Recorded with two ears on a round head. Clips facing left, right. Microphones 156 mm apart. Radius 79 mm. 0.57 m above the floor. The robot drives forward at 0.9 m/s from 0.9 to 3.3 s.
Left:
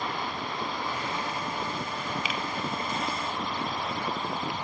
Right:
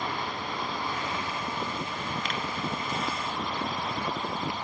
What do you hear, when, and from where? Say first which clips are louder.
2.2 s a finger snap: even; 5° left (ahead or behind), 1.0 m